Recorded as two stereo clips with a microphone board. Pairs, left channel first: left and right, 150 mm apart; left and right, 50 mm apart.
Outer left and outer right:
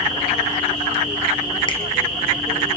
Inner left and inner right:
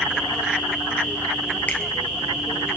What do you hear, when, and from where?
1.7 s a finger snap: 35° left (ahead or behind), 2 m